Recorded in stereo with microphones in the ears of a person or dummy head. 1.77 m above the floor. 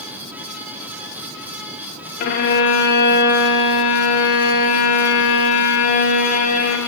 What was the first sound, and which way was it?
A violin, 50° left (ahead or behind).